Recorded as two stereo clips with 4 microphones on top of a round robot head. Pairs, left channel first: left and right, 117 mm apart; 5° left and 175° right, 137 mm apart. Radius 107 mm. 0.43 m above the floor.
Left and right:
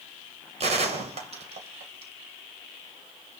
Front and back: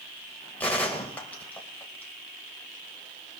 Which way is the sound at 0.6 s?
75° right.